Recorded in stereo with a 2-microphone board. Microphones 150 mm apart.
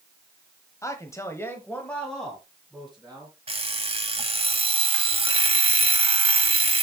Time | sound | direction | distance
0.8 | a man speaking | 20° left (ahead or behind) | 1.4 m
3.5 | an alarm clock | 40° right (ahead or behind) | 0.9 m